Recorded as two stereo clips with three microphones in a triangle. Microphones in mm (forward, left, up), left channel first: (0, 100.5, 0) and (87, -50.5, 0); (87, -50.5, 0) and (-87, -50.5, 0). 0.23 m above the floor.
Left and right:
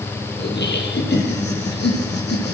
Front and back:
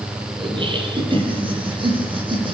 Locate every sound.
0.4 s laughter: 120° left, 7 m